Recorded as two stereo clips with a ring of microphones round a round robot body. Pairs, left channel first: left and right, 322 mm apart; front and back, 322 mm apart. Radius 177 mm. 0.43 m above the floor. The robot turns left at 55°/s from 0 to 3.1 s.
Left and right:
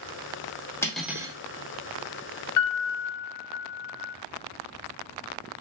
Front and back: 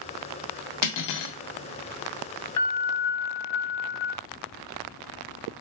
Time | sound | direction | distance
0.8 | cutlery clinking | 10° left | 0.5 m
2.6 | a piano | 45° left | 0.5 m